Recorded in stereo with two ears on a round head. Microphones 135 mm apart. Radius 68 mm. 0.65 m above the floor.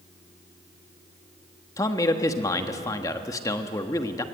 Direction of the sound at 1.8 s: 25° left (ahead or behind).